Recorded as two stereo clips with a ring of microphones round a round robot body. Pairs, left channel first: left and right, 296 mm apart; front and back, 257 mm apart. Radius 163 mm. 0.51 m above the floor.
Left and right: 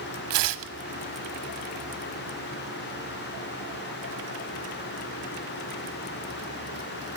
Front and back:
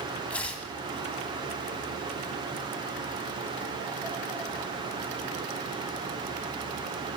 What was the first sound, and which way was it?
Tearing paper, 85° right.